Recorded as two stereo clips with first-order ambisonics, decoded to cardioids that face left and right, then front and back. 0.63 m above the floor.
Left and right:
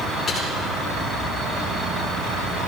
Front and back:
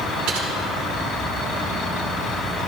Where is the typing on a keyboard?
160° left, 5 m.